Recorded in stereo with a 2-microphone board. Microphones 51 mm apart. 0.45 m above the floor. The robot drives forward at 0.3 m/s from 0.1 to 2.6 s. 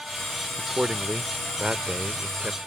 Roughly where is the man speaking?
Right.